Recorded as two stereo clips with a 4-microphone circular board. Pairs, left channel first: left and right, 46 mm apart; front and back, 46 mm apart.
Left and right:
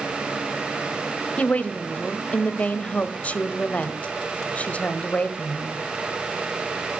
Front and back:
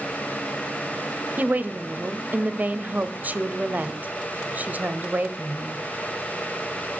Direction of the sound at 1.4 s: 140° left.